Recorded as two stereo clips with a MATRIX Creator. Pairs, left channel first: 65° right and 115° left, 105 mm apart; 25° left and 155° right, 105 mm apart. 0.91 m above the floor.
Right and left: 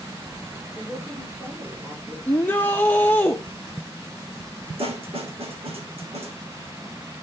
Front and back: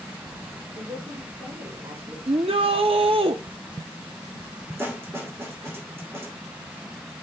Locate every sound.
0.7 s a woman speaking: 175° right, 4 m; by 2.2 s straight behind, 3.5 m
2.3 s a shout: 140° right, 0.7 m
4.8 s a snare drum: 135° left, 2.5 m